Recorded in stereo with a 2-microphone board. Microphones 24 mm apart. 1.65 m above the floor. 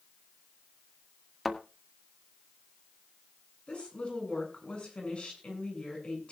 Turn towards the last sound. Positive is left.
turn(degrees=45)  # may be behind; listen again after turning